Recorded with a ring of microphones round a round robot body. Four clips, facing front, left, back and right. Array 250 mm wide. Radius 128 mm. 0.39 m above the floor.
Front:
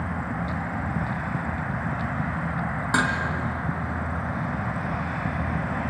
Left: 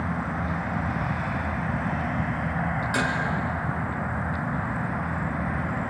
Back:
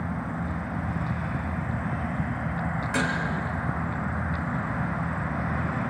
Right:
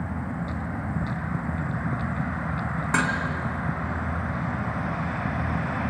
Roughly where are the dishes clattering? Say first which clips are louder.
Right 3 dB, front 4 dB; ahead right.